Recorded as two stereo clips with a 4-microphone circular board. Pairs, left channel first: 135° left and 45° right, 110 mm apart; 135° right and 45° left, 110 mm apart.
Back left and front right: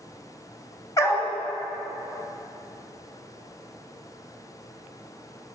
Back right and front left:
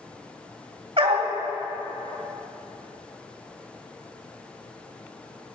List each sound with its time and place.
1.0 s a dog barking: 75° left, 1.8 m